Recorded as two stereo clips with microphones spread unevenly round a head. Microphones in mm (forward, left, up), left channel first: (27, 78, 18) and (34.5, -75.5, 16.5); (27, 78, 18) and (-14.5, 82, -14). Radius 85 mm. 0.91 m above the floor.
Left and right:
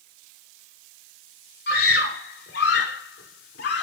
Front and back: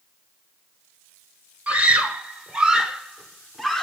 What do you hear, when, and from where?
1.7 s a scream: 125° left, 3.5 m; by 3.8 s 90° left, 2.5 m